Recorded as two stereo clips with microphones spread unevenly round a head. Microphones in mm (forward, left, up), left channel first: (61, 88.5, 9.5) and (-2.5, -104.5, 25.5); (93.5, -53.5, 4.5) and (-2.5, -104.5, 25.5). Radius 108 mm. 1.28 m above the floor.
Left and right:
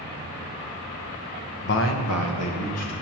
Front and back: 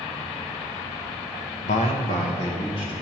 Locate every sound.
1.6 s a man speaking: 35° left, 0.9 m; by 2.9 s 95° left, 2 m